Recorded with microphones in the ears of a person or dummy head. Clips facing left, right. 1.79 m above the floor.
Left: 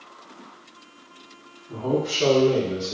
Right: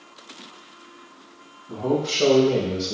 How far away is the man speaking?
About 1.8 m.